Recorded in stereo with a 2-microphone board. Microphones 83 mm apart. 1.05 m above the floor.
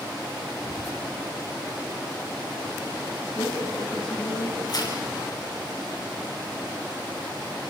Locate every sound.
0.6 s whispering: 70° right (ahead or behind), 3 m
3.4 s a woman speaking: 85° left, 7 m
4.7 s tearing paper: 55° left (ahead or behind), 6.5 m